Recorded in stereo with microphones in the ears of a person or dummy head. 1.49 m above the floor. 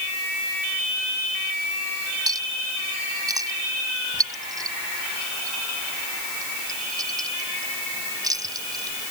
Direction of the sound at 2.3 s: 20° right (ahead or behind).